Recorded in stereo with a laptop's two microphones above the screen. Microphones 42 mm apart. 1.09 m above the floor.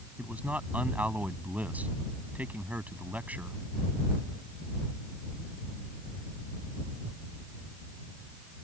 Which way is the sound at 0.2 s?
35° right (ahead or behind).